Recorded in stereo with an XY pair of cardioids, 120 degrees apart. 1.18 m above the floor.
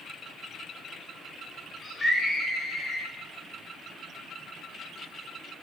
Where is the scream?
30° left, 4.5 m; by 3.1 s 40° left, 4.5 m.